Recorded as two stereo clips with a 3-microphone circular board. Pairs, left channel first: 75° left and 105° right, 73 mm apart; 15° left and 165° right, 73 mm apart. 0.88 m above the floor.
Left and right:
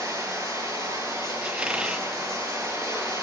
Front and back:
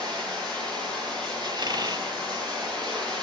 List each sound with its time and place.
0.0 s running water: 140° right, 9 m
1.4 s a squeak: straight behind, 0.8 m